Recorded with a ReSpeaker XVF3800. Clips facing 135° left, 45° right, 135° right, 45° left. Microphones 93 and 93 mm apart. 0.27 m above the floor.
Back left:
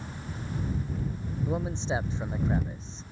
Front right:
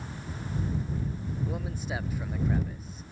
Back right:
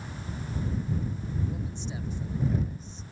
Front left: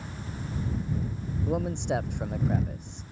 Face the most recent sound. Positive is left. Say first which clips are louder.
# back left 9 dB, front left 8 dB
turn(degrees=70)